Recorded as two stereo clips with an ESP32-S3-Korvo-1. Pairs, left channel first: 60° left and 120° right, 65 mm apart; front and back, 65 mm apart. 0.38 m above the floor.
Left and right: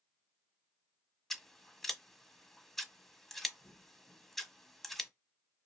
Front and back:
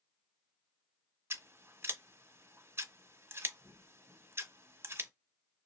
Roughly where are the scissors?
Behind left.